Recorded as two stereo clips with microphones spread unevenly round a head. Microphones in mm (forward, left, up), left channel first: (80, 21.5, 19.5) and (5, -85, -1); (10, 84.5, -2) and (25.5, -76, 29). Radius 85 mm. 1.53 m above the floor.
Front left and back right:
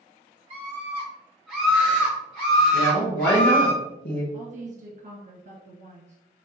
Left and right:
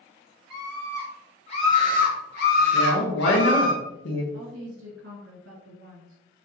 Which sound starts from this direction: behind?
A scream, at 0.5 s.